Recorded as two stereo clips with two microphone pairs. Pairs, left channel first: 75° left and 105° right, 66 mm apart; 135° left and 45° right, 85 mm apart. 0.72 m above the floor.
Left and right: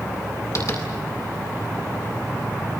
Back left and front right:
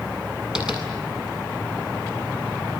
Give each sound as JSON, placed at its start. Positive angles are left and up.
{"t": 0.6, "sound": "tapping", "azimuth_deg": 35, "distance_m": 8.0}